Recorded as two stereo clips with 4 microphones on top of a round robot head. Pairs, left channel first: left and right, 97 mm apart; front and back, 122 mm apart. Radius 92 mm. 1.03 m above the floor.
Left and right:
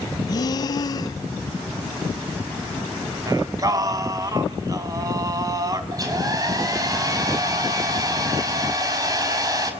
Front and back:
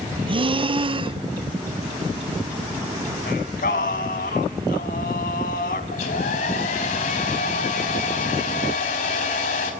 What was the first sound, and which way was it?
Breathing, 135° left.